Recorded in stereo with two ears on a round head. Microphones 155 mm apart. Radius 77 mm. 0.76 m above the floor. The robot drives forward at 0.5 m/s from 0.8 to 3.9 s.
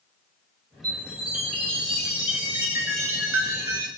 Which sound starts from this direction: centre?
A chime, at 0.8 s.